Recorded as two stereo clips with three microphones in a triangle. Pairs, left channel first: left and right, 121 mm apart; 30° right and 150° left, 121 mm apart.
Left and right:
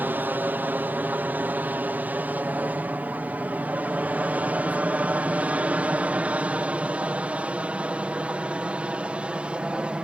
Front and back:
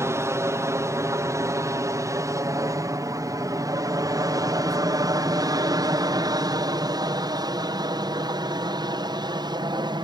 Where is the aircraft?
155° right; by 10.1 s 170° right.